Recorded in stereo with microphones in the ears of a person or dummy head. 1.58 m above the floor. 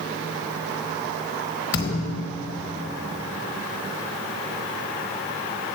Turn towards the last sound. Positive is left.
turn(degrees=20)  # may be behind; listen again after turning